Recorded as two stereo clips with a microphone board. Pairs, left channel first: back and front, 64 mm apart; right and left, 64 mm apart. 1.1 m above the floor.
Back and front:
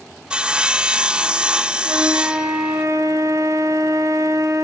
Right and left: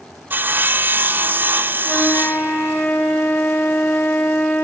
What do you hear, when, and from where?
0.3 s sawing: 60° left, 0.6 m
1.9 s a flute: 30° right, 3.5 m